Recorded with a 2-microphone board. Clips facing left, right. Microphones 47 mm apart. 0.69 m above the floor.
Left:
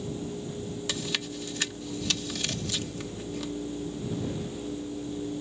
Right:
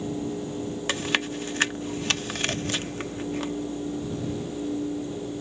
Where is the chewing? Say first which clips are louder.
Right 8 dB; 45° right (ahead or behind).